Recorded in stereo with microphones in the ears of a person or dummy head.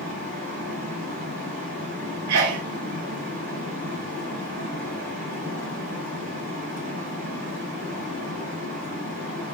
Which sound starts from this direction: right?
A sneeze, at 2.3 s.